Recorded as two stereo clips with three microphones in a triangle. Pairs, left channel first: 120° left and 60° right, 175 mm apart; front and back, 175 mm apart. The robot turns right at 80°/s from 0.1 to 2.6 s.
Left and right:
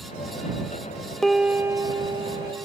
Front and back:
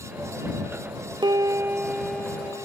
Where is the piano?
155° right; by 2.7 s 45° right.